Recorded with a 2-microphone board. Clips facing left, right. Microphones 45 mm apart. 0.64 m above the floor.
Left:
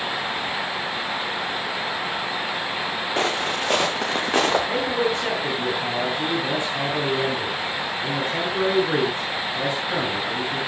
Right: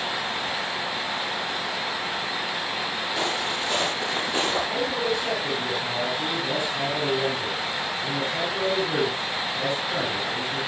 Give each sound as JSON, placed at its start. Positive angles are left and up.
{"t": 3.2, "sound": "footsteps", "side_deg": 45, "distance_m": 3.5}
{"t": 4.7, "sound": "a man speaking", "side_deg": 40, "distance_m": 9.0}